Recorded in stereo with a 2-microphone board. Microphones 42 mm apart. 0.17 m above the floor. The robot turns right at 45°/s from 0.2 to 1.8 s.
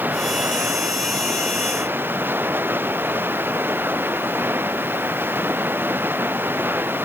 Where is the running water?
130° right; by 7.0 s 60° right.